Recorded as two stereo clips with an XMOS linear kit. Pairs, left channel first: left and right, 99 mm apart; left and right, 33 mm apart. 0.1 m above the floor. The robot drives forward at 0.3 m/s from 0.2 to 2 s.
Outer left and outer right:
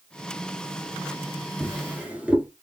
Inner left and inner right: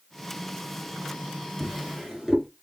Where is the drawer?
15° right (ahead or behind), 1.1 m.